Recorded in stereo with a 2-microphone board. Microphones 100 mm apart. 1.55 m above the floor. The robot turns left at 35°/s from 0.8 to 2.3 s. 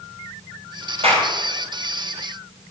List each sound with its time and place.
1.0 s a clap: 80° right, 7 m; by 1.3 s 85° right, 7 m